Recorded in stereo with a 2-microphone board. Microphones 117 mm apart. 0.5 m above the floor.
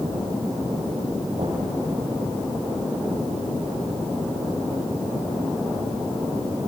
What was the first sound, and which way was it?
Knocking, 75° right (ahead or behind).